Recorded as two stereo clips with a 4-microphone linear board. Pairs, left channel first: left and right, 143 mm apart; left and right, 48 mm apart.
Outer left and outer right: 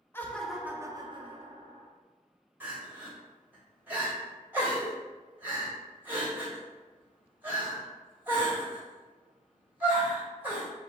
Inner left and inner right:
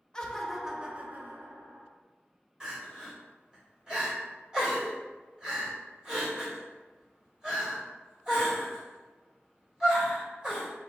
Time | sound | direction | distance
0.1 | laughter | 15° left (ahead or behind) | 0.6 m
2.6 | crying | 15° right (ahead or behind) | 1.9 m